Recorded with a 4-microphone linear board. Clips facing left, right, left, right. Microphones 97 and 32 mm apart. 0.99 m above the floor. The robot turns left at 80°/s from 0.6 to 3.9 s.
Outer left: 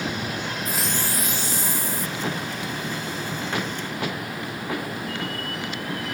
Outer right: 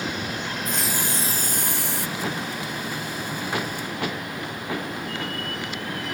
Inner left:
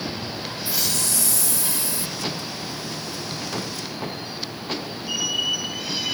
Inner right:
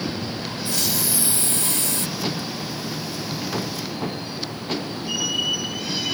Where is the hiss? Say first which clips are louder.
Even, inner right 1 dB; 10° left; by 2.1 s 100° right.